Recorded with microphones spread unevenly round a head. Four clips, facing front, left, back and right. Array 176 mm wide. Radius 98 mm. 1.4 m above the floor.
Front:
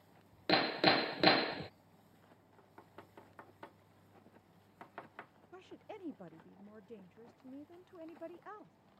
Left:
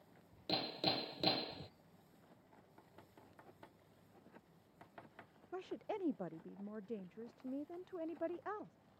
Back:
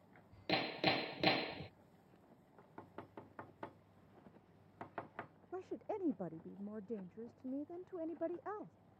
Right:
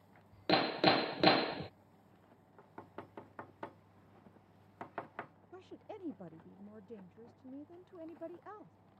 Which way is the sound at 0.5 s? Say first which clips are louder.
Right 11 dB, front 6 dB; 55° right.